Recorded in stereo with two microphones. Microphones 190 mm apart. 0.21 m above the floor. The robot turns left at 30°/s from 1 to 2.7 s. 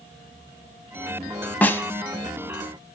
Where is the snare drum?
10° left (ahead or behind), 0.5 m; by 1.8 s 15° left (ahead or behind), 0.5 m.